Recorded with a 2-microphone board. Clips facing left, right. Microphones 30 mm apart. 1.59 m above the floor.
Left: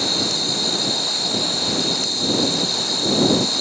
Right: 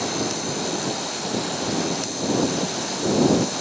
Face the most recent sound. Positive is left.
turn(degrees=70)  # may be behind; listen again after turning